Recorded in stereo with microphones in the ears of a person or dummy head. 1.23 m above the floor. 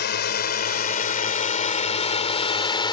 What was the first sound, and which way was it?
A drone, 50° left (ahead or behind).